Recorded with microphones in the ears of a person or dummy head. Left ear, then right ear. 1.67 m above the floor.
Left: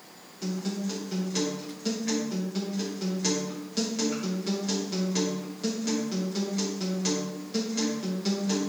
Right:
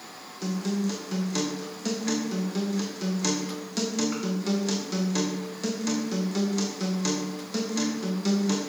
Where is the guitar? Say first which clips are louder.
Right 3 dB; 25° right (ahead or behind), 1.1 m.